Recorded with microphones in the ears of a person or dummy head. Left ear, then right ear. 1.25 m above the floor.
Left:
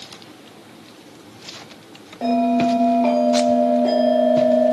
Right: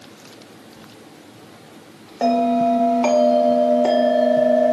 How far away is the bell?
About 1.0 m.